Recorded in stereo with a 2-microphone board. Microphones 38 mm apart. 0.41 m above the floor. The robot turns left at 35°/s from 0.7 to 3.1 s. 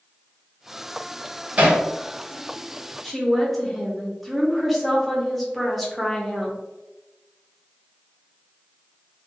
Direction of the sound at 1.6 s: 35° right (ahead or behind).